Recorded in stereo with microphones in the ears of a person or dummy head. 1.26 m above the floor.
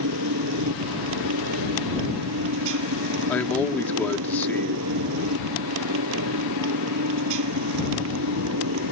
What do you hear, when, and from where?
0.0 s a motorcycle: 70° right (ahead or behind)
3.3 s a man speaking: 10° left (ahead or behind)